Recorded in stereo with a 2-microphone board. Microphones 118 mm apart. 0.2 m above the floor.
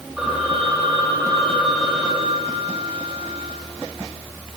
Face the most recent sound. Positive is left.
turn(degrees=-5)  # may be behind; listen again after turning